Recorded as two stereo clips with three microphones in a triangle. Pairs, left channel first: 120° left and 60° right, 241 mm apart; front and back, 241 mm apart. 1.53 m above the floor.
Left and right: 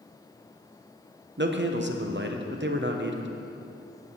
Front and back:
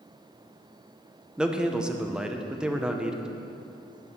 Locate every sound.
1.4 s a man speaking: 95° right, 0.8 m